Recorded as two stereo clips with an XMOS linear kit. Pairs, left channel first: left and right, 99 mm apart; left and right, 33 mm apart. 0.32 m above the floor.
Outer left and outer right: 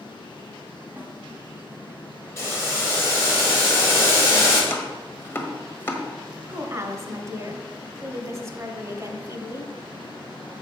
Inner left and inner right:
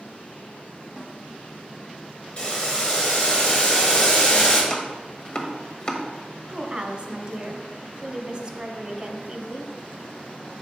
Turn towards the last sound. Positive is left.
turn(degrees=-35)  # may be behind; listen again after turning